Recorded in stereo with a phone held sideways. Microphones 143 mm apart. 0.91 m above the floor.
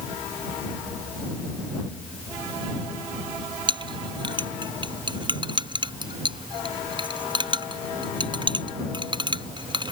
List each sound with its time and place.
3.7 s a clink: 35° right (ahead or behind)